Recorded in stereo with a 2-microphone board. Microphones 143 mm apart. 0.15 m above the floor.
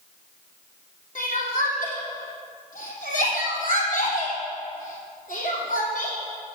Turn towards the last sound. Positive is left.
turn(degrees=65)  # may be behind; listen again after turning